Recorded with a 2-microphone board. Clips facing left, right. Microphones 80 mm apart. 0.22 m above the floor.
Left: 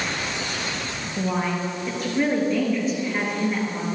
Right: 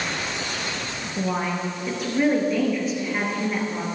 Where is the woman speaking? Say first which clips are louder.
Left 1 dB; centre (ahead or behind), 3.5 m.